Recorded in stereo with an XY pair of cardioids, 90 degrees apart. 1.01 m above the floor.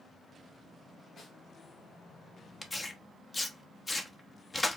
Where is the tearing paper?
25° left, 0.9 m.